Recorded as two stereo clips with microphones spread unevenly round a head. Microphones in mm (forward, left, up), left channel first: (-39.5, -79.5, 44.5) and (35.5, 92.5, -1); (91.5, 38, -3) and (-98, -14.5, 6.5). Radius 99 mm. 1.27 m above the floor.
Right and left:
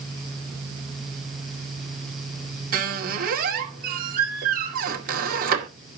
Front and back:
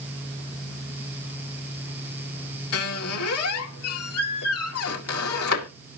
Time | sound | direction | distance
2.7 | a squeak | 20° left | 2 m